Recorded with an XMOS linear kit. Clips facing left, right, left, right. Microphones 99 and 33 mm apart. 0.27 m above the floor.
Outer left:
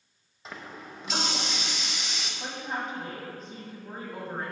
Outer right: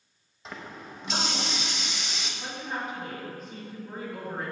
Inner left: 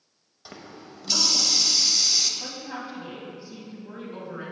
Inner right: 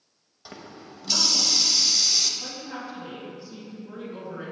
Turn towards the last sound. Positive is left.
turn(degrees=30)  # may be behind; listen again after turning